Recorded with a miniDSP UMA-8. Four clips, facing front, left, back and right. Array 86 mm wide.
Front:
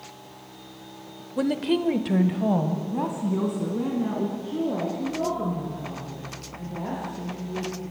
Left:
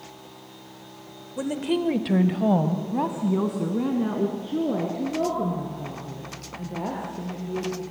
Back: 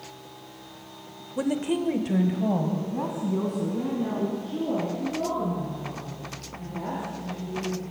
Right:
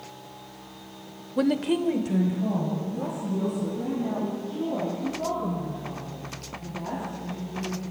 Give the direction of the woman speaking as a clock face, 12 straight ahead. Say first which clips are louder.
Right 2 dB, front 2 dB; 2 o'clock.